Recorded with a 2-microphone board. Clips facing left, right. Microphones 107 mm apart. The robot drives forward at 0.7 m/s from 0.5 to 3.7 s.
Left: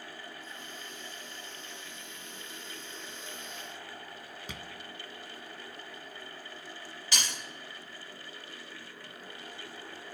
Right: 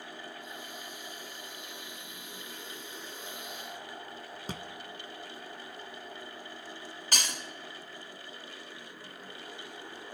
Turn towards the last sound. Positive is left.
turn(degrees=-45)  # may be behind; listen again after turning